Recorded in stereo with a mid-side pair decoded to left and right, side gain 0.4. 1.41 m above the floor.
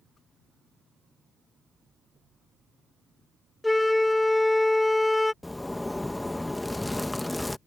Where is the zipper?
20° left.